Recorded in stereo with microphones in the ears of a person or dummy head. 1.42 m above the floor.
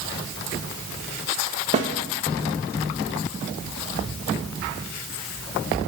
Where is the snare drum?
30° right (ahead or behind), 0.6 m.